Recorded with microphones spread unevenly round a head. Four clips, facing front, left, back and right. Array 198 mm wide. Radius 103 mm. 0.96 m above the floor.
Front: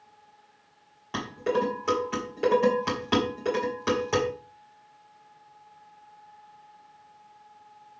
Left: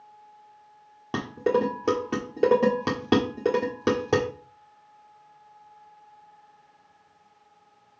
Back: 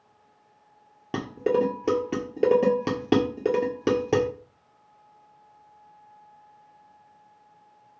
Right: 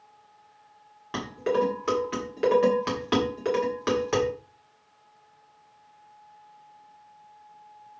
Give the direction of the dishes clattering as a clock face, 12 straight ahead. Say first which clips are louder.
Left 2 dB, back 3 dB; 7 o'clock.